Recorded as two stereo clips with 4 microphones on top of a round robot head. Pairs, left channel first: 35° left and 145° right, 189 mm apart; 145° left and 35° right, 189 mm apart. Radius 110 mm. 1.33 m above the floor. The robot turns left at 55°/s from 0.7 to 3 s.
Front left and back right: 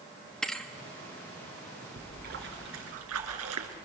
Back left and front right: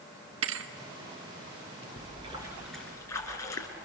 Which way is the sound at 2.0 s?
85° right.